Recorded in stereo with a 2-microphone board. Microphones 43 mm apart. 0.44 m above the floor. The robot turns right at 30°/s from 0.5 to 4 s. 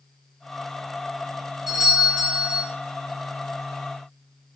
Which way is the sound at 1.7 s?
170° right.